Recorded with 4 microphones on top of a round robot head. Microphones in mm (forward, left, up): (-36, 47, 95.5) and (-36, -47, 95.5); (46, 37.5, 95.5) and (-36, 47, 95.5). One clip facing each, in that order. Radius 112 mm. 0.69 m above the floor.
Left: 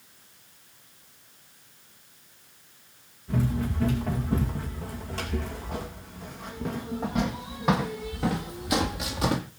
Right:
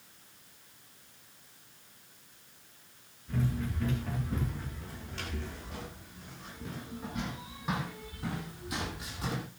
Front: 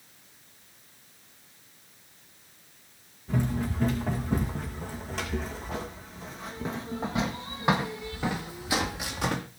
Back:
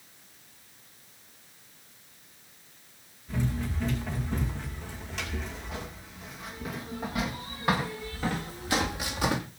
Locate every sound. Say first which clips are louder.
3.3 s running footsteps: left 6 dB, front 3 dB; 30° left, 4 m; by 9.4 s 90° left, 1.6 m